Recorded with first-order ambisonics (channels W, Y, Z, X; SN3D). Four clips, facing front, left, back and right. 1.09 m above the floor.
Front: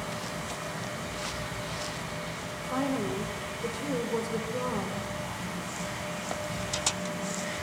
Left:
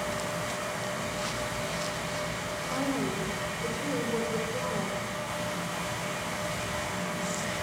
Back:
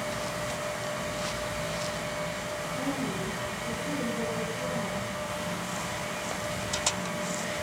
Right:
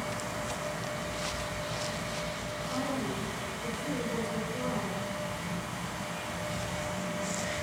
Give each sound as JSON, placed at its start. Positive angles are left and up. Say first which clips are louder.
{"t": 2.7, "sound": "a woman speaking", "louder": "left 3 dB, front 4 dB", "azimuth_deg": 30, "distance_m": 3.0}